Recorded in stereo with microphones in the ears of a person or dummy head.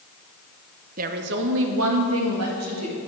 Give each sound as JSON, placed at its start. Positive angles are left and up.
{"t": 1.0, "sound": "a woman speaking", "side_deg": -40, "distance_m": 0.8}